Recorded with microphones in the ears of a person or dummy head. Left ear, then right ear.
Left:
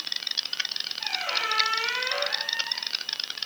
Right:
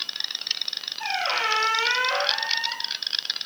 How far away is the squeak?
About 0.7 m.